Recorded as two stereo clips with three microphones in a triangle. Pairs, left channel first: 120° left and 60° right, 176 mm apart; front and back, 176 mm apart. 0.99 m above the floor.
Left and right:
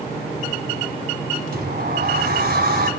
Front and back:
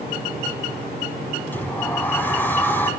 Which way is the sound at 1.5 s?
80° right.